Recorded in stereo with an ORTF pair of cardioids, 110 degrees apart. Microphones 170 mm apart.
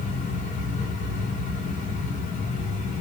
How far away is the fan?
About 1.3 m.